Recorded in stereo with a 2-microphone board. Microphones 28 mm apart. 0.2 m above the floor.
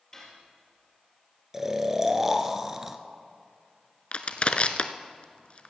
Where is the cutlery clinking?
15° left (ahead or behind), 3 m.